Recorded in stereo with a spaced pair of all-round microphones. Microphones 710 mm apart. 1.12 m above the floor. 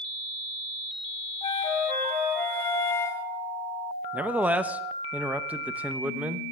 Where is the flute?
50° left (ahead or behind), 1.0 m.